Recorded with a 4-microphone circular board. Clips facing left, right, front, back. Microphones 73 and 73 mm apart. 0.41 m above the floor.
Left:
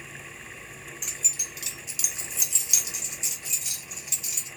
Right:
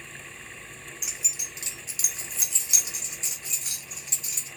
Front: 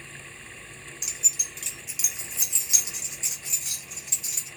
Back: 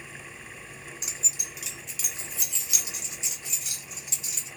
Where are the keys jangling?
170° right, 0.5 m; by 4.5 s 40° right, 1.8 m.